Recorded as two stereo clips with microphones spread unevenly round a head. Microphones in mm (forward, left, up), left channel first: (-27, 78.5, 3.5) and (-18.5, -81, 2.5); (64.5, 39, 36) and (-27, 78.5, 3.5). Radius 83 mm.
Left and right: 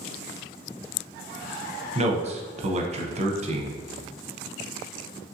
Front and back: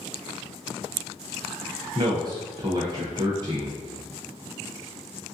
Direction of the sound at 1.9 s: 140° right.